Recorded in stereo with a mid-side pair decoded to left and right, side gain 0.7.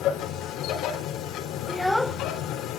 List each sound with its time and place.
0.0 s a machine running: 55° left, 4 m
1.7 s a child speaking: 5° left, 0.6 m